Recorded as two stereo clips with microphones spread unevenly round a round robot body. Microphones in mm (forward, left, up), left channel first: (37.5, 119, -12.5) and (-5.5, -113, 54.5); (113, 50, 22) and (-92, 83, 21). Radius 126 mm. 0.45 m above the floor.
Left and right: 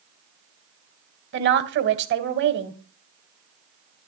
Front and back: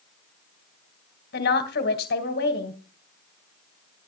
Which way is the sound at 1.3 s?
55° right.